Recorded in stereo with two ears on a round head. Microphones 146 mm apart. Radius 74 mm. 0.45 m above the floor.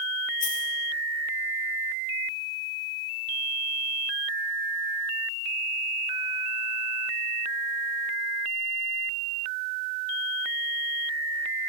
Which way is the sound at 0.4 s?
50° left (ahead or behind).